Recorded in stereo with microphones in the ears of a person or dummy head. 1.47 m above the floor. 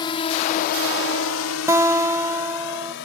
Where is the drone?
30° left (ahead or behind); by 3.0 s 60° left (ahead or behind).